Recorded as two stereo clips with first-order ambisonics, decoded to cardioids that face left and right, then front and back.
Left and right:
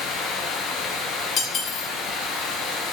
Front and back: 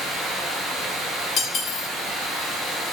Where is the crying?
I don't hear crying.